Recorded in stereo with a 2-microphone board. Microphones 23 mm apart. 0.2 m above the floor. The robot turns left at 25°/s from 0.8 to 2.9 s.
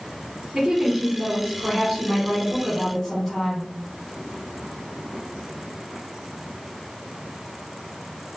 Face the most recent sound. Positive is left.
turn(degrees=175)